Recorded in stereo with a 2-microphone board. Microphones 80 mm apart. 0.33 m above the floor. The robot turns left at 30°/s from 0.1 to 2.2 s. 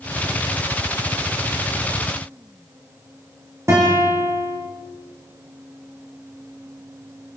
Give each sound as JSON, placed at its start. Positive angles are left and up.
{"t": 3.7, "sound": "a guitar", "side_deg": -35, "distance_m": 9.0}